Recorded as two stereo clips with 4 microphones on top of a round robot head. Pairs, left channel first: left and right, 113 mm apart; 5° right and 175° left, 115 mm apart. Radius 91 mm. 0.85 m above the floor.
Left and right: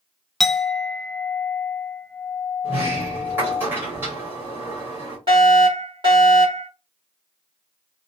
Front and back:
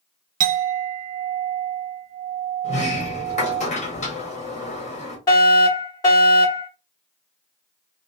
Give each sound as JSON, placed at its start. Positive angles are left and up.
{"t": 0.4, "sound": "a clink", "azimuth_deg": 180, "distance_m": 0.5}
{"t": 2.6, "sound": "a sliding door", "azimuth_deg": -15, "distance_m": 1.2}
{"t": 5.3, "sound": "a fire alarm", "azimuth_deg": -55, "distance_m": 1.9}